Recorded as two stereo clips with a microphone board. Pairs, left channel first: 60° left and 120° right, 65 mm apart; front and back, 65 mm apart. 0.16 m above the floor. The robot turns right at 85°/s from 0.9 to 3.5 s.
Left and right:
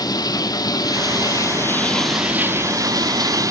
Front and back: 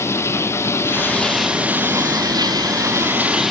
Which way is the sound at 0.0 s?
50° left.